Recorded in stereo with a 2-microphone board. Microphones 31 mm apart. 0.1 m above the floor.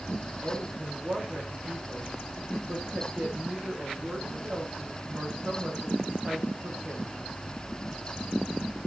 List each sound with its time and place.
0.4 s a woman speaking: 45° right (ahead or behind), 8.5 m